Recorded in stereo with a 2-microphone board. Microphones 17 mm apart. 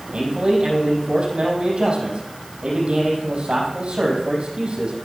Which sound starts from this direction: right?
A man speaking, at 0.1 s.